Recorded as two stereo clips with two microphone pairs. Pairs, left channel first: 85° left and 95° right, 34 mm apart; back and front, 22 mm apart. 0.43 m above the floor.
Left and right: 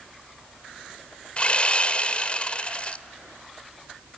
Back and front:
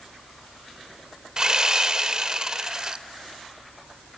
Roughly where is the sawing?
Ahead left.